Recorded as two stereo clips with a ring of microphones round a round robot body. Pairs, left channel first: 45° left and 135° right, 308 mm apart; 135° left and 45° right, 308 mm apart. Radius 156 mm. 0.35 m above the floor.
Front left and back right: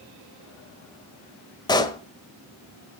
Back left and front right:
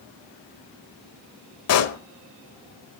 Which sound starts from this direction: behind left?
A pop, at 1.7 s.